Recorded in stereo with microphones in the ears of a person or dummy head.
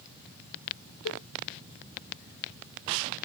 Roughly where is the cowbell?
Left.